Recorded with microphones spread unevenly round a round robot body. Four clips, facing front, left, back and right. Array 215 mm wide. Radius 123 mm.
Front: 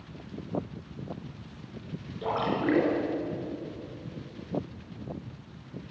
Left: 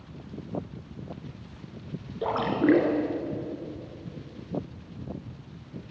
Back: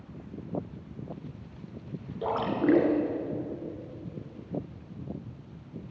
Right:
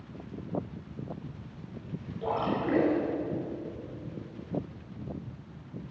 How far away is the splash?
About 1.9 m.